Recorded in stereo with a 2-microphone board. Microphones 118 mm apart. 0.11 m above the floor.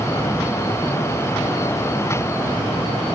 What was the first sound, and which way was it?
Only background noise.